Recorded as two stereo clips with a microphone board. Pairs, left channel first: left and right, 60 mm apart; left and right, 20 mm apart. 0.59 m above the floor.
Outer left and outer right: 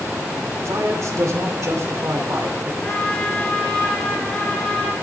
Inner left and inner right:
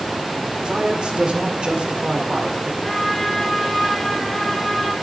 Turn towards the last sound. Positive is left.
turn(degrees=20)  # may be behind; listen again after turning